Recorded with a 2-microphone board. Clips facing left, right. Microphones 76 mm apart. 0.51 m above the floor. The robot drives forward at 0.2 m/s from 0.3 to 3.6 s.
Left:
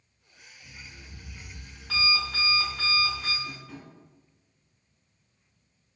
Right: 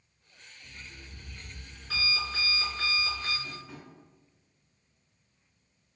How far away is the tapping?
About 1.5 m.